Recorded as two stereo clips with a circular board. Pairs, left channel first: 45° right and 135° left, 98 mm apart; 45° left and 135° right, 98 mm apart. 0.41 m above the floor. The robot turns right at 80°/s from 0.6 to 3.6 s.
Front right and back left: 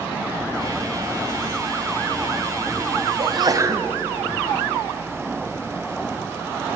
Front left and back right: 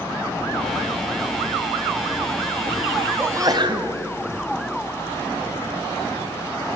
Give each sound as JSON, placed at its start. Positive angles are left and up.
{"t": 3.2, "sound": "a sneeze", "azimuth_deg": 155, "distance_m": 2.0}